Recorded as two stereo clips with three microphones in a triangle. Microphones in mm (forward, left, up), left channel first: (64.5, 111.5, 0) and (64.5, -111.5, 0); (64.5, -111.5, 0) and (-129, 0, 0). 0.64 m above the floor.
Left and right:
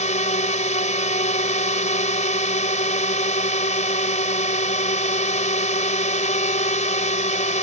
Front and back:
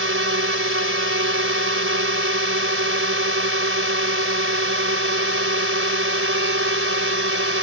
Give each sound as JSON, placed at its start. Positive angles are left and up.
{"t": 0.0, "sound": "a drone", "azimuth_deg": 145}